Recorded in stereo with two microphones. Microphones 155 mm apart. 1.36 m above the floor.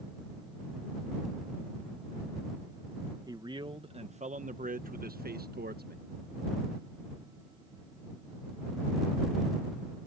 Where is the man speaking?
25° right (ahead or behind); by 6.0 s 85° right.